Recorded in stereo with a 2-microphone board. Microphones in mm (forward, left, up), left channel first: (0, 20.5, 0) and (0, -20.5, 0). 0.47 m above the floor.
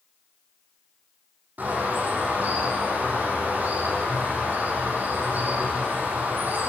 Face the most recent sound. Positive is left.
turn(degrees=-45)  # may be behind; listen again after turning